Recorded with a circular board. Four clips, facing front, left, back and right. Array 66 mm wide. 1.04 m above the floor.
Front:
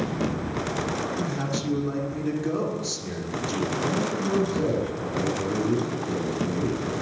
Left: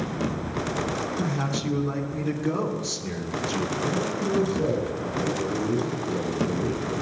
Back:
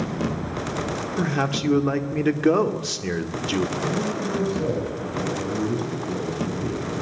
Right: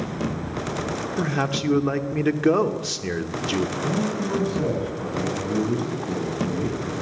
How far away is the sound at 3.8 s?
About 8.5 m.